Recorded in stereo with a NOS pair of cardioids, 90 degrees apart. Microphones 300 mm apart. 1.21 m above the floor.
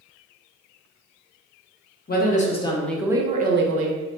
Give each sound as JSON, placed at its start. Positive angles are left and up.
{"t": 2.1, "sound": "a woman speaking", "azimuth_deg": 30, "distance_m": 1.0}